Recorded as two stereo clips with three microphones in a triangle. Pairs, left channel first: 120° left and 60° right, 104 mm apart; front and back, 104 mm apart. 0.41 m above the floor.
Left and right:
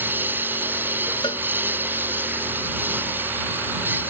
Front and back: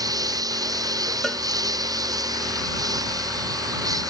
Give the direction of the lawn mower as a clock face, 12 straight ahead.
4 o'clock.